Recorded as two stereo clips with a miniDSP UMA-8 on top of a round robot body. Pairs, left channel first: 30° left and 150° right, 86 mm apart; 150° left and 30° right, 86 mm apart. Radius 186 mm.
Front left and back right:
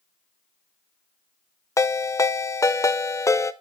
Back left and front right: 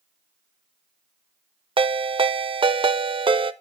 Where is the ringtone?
25° right, 0.6 m.